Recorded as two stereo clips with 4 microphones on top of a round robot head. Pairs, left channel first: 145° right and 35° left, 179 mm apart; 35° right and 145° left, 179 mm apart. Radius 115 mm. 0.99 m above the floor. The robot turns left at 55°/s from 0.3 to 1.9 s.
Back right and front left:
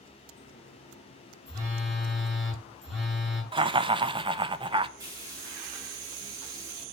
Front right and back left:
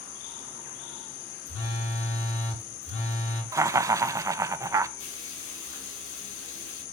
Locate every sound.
1.5 s a phone buzzing: 30° right, 6.5 m; by 3.4 s 50° right, 6.5 m
3.5 s laughter: 80° left, 0.7 m
5.0 s frying: 35° right, 4.5 m